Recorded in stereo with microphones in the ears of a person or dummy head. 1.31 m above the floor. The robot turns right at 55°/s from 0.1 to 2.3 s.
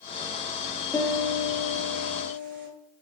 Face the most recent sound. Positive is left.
turn(degrees=-105)